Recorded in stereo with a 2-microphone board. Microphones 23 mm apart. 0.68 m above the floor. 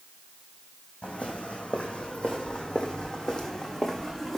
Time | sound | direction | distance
1.0 | footsteps | 65° left (ahead or behind) | 2 m